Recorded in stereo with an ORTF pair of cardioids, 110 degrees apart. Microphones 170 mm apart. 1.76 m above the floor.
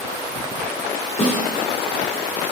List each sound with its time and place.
1.2 s a snare drum: 45° left, 3 m